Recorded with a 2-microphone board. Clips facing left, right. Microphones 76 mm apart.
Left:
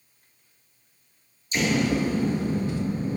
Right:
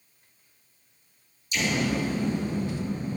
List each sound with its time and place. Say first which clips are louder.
1.5 s an explosion: left 3 dB; 40° left (ahead or behind), 2.5 m